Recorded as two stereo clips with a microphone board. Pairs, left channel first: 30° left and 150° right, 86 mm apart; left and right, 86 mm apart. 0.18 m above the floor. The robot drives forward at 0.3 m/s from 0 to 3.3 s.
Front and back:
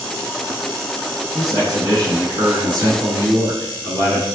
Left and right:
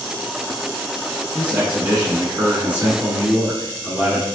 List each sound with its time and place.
1.4 s a man speaking: 160° right, 1.5 m; by 4.2 s 165° right, 2.0 m